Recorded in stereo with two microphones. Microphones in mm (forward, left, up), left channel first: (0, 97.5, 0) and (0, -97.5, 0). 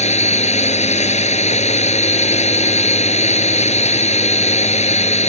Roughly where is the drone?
Left.